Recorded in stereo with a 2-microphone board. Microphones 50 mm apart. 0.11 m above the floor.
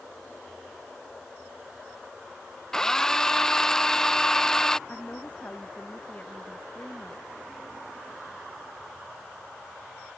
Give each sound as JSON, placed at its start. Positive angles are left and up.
{"t": 2.7, "sound": "a drill", "side_deg": 10}
{"t": 4.9, "sound": "a woman speaking", "side_deg": 30}